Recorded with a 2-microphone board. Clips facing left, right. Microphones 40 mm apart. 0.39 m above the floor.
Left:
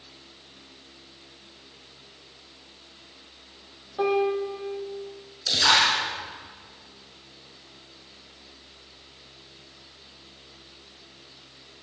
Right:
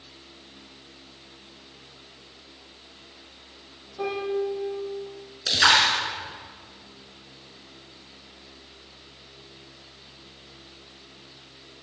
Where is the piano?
40° left (ahead or behind), 3.5 m.